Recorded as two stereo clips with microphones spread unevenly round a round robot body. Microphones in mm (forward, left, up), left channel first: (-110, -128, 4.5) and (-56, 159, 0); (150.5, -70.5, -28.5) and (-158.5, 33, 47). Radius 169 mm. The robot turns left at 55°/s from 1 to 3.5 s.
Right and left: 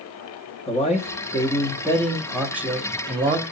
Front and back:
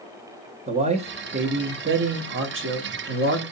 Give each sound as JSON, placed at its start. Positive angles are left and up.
{"t": 0.7, "sound": "a man speaking", "azimuth_deg": -120, "distance_m": 0.5}